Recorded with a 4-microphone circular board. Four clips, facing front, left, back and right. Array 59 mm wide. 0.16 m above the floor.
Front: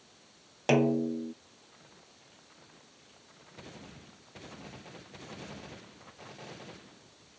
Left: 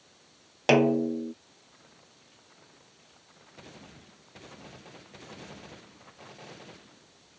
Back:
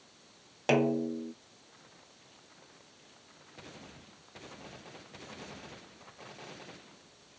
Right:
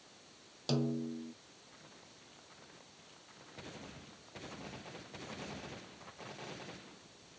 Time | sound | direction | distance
0.7 | a snare drum | 95° left | ?